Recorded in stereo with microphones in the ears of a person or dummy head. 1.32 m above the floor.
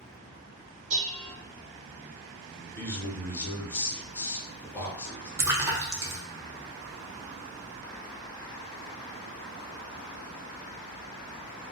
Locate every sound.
0.9 s dishes clattering: 40° right (ahead or behind), 1.0 m
2.8 s a man speaking: 10° left (ahead or behind), 0.9 m
5.4 s a splash: 15° right (ahead or behind), 0.6 m